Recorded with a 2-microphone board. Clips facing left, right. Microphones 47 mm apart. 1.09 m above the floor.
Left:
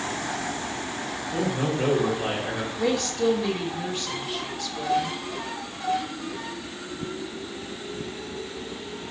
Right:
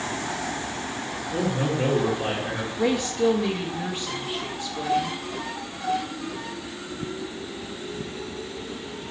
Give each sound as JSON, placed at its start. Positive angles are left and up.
{"t": 1.3, "sound": "a man speaking", "side_deg": -15, "distance_m": 3.0}
{"t": 2.8, "sound": "a woman speaking", "side_deg": -15, "distance_m": 0.8}